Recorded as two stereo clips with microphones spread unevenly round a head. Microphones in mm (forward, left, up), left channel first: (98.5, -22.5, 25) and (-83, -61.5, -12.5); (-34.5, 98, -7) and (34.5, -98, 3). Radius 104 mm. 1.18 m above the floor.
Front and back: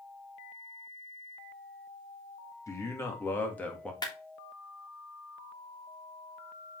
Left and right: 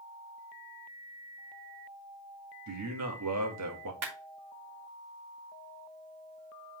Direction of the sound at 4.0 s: 55° right.